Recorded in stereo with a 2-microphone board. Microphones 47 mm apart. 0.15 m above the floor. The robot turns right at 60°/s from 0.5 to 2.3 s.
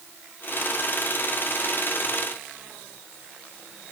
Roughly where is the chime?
I don't hear a chime.